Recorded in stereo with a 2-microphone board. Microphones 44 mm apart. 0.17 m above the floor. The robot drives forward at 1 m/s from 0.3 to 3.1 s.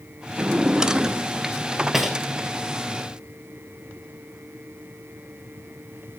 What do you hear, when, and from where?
0.4 s a drawer: 25° right (ahead or behind), 0.6 m; by 2.2 s 5° right (ahead or behind), 2 m